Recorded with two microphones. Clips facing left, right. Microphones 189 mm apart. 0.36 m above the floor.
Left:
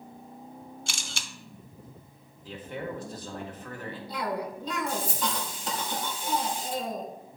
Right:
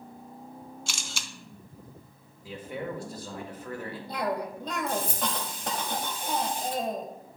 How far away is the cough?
About 1.4 m.